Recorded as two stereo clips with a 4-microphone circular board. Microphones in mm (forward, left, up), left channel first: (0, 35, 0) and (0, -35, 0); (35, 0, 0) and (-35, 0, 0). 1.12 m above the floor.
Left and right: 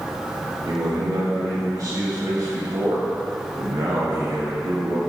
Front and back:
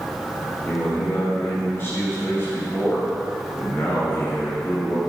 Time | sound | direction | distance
0.7 | a man speaking | 55° right | 1.6 m